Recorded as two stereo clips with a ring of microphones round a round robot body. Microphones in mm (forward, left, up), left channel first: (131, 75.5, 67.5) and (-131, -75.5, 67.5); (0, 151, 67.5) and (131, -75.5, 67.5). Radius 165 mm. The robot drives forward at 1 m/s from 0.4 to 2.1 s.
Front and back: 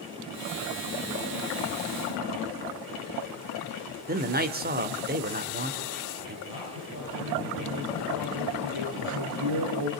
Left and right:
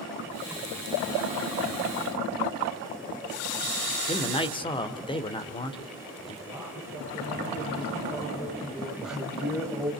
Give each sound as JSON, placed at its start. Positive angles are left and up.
{"t": 4.1, "sound": "a man speaking", "azimuth_deg": 180, "distance_m": 1.6}
{"t": 6.5, "sound": "a man speaking", "azimuth_deg": -165, "distance_m": 10.0}
{"t": 9.0, "sound": "a man speaking", "azimuth_deg": -145, "distance_m": 3.0}